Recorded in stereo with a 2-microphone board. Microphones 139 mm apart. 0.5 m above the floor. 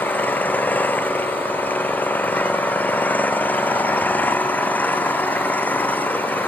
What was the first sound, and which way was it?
An engine running, 10° left (ahead or behind).